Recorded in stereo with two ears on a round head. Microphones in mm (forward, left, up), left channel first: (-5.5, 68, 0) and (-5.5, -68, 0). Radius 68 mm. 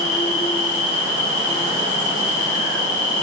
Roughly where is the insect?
Left.